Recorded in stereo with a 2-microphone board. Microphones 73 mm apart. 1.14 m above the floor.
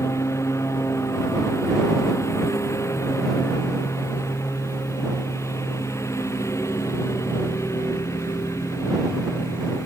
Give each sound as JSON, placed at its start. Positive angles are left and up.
{"t": 0.0, "sound": "a lawn mower", "side_deg": 40}